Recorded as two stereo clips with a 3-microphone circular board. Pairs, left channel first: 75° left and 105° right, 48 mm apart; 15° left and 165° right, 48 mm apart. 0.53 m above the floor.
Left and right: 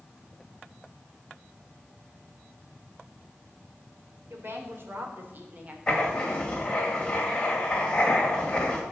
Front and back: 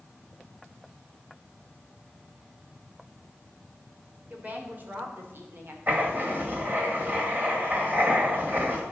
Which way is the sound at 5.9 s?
145° left.